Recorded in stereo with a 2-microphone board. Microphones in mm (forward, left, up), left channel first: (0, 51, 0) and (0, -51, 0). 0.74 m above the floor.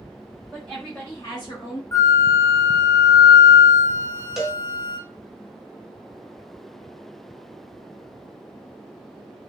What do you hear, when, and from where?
0.5 s a woman speaking: 10° right (ahead or behind), 1.1 m; by 1.8 s 60° left (ahead or behind), 1.2 m
1.9 s a flute: 35° left (ahead or behind), 0.6 m
4.4 s a cowbell: 5° right (ahead or behind), 0.5 m